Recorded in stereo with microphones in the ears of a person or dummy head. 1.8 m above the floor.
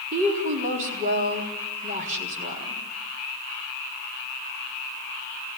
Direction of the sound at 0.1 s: 45° right (ahead or behind).